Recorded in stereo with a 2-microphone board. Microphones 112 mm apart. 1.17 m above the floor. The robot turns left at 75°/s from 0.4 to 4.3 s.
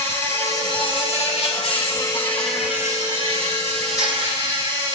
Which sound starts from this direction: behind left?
An insect, at 0.0 s.